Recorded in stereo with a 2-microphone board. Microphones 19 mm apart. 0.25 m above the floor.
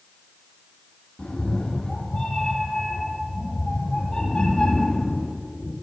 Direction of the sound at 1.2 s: 45° left (ahead or behind).